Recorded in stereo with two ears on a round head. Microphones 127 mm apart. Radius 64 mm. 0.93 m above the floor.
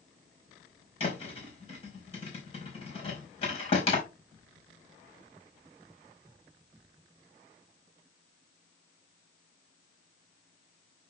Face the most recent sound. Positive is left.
turn(degrees=40)  # may be behind; listen again after turning